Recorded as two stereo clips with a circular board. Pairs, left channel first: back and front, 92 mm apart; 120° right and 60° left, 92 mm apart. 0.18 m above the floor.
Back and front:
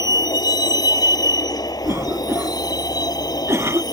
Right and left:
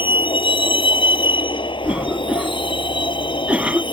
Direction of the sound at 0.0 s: 135° right.